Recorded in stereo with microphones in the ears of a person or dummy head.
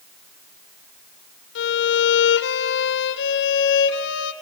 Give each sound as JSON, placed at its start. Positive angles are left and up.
{"t": 1.6, "sound": "a violin", "side_deg": 60, "distance_m": 0.8}